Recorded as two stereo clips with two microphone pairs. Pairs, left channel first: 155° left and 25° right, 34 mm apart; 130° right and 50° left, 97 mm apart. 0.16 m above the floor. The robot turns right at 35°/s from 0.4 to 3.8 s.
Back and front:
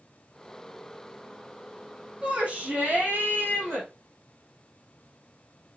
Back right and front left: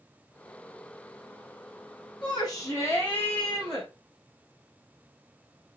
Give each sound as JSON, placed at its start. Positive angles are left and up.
{"t": 2.2, "sound": "a shout", "azimuth_deg": -95, "distance_m": 5.5}